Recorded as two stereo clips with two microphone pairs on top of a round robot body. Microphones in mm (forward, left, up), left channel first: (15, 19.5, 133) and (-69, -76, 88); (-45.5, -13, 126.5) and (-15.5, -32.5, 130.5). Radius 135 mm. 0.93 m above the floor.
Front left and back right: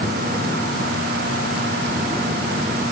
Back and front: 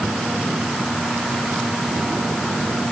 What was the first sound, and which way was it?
Only background noise.